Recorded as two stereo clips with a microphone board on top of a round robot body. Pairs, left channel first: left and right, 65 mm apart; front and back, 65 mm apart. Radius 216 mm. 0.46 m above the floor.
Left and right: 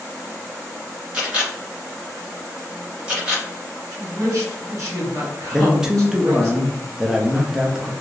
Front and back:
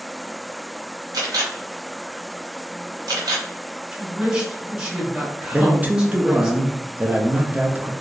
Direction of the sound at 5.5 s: 155° right.